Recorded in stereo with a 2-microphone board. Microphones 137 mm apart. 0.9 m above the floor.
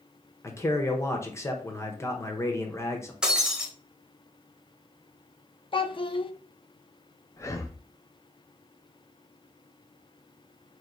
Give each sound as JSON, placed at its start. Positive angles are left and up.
{"t": 0.4, "sound": "a man speaking", "side_deg": 20, "distance_m": 0.8}
{"t": 3.2, "sound": "breaking glass", "side_deg": -5, "distance_m": 1.1}
{"t": 5.7, "sound": "a child speaking", "side_deg": 40, "distance_m": 0.5}
{"t": 7.4, "sound": "breathing", "side_deg": 20, "distance_m": 0.5}